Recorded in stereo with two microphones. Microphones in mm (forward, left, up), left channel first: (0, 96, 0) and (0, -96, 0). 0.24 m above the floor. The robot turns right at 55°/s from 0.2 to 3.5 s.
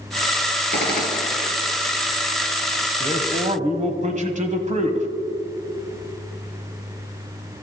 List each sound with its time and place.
0.7 s a gunshot: 115° left, 2.5 m; by 1.5 s 155° left, 2.5 m
3.0 s a man speaking: 30° right (ahead or behind), 1.2 m; by 5.1 s 40° right (ahead or behind), 1.2 m